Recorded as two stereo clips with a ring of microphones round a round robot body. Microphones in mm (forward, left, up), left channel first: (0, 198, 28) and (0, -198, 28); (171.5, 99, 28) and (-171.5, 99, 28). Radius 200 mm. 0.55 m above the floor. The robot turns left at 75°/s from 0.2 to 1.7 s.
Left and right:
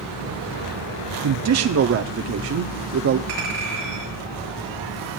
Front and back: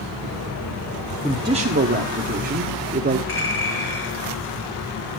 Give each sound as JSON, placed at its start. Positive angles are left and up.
{"t": 1.2, "sound": "a man speaking", "azimuth_deg": -90, "distance_m": 0.8}
{"t": 3.3, "sound": "a clink", "azimuth_deg": -60, "distance_m": 6.5}